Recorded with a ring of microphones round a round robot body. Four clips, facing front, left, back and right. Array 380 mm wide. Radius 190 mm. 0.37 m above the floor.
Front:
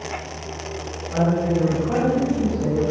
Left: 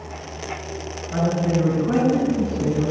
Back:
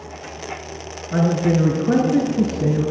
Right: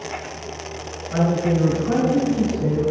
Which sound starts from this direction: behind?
A man speaking, at 1.1 s.